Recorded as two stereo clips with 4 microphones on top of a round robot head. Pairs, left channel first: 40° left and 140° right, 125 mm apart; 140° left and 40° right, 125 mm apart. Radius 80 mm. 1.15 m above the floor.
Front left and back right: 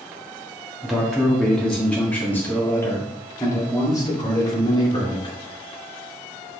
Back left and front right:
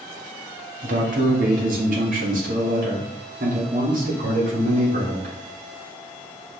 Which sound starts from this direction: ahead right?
A man speaking, at 0.8 s.